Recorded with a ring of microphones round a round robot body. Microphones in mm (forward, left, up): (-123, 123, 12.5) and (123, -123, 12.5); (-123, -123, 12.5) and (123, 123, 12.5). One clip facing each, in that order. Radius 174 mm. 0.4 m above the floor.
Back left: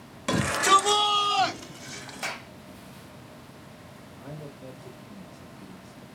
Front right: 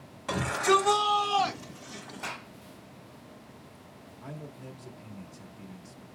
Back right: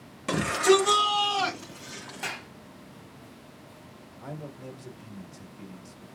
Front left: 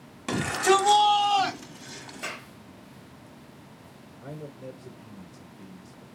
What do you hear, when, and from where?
0.3 s a shout: 125° left, 1.5 m; by 2.4 s 120° left, 2.5 m
2.2 s a clap: 145° left, 2.0 m
4.2 s a man speaking: 90° right, 1.3 m